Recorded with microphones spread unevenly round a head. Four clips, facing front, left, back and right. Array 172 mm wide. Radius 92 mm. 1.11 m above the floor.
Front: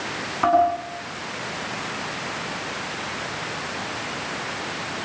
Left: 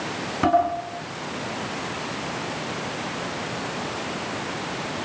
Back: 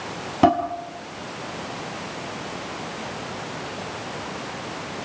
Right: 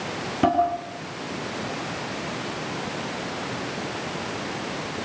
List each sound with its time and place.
0.4 s dishes clattering: 170° right, 7.5 m